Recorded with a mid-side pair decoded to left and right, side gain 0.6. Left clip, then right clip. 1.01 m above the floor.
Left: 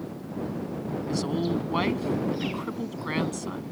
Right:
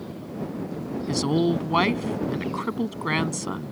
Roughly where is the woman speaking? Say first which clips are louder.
Right 6 dB; ahead right.